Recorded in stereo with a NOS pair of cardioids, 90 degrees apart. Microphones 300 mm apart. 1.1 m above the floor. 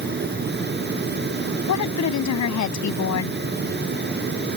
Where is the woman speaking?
60° left.